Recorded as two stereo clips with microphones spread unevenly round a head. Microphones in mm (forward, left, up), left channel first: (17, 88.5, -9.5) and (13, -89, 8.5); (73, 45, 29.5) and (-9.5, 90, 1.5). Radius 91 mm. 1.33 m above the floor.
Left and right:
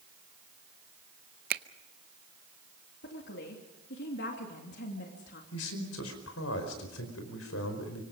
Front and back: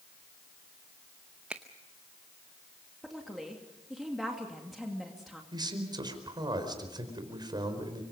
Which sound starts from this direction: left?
A man speaking, at 5.5 s.